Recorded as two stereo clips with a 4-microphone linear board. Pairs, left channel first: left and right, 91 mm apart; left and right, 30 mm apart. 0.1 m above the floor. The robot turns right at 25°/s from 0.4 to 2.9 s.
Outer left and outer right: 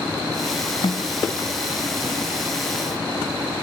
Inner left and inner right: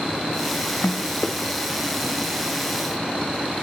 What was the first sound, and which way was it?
A snare drum, 75° left (ahead or behind).